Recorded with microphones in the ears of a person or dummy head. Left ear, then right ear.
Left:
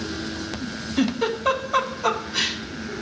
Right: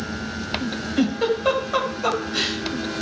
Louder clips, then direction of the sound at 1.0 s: Right 2 dB; 5° right (ahead or behind).